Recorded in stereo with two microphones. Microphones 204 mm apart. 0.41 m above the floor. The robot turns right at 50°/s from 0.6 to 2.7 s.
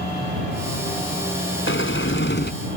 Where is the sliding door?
80° left; by 2.5 s 125° left.